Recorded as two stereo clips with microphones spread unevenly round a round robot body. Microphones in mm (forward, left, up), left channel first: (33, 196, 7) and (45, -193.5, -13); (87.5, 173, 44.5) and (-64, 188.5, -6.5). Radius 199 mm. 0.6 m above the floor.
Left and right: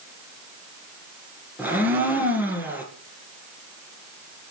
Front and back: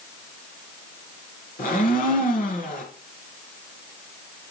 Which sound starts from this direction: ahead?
A blender, at 1.6 s.